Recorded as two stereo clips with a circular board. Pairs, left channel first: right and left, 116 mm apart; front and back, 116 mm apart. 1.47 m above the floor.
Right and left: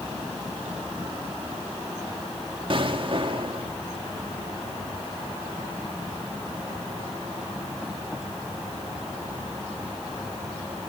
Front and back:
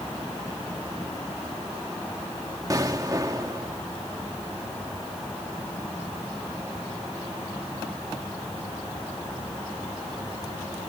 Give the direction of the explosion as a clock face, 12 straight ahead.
8 o'clock.